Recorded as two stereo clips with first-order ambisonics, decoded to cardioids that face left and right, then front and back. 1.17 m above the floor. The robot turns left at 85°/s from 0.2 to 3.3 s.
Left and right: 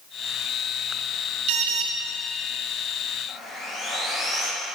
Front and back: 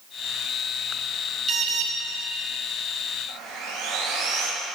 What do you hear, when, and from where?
1.5 s an alarm: 110° right, 0.9 m; by 1.9 s 145° right, 0.9 m
3.3 s sawing: 165° left, 1.8 m; by 4.5 s 160° left, 1.8 m